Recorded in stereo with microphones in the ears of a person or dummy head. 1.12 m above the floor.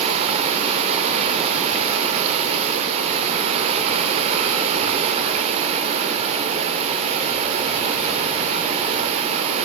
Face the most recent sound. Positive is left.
turn(degrees=-35)  # may be behind; listen again after turning